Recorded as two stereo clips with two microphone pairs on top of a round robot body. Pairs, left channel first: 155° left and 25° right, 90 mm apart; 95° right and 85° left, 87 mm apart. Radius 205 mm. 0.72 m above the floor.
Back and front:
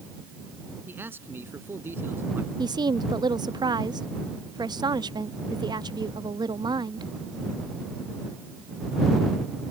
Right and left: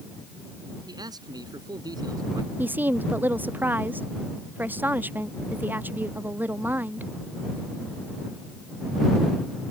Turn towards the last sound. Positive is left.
turn(degrees=15)